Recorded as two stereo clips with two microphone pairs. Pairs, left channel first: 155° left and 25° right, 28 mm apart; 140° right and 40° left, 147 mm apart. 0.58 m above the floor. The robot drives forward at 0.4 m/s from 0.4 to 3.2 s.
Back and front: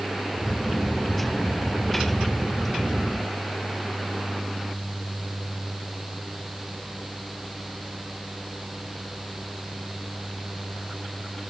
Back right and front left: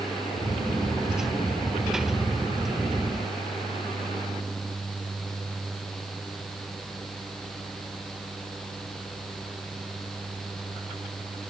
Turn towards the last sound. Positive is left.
No sound to turn to.